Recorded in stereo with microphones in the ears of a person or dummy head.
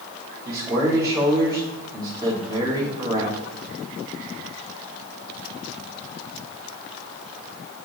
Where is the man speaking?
25° right (ahead or behind), 2.5 m.